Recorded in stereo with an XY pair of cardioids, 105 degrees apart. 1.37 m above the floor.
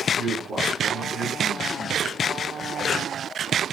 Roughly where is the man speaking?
Ahead right.